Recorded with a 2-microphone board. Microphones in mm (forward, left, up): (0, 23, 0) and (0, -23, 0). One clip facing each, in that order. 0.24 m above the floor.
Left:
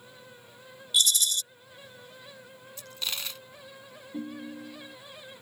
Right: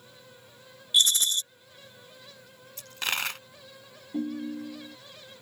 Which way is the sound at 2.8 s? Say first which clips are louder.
Right 6 dB; 60° right (ahead or behind).